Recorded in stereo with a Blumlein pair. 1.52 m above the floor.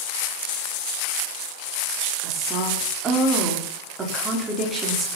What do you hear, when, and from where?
2.2 s a woman speaking: 15° right, 4 m